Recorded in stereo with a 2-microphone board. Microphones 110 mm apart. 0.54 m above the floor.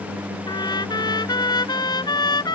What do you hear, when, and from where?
0.5 s a trumpet: 40° left (ahead or behind)